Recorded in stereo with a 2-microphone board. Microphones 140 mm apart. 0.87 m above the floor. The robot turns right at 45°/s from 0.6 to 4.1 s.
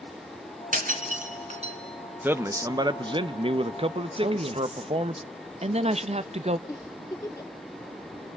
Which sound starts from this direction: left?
A giggle, at 6.7 s.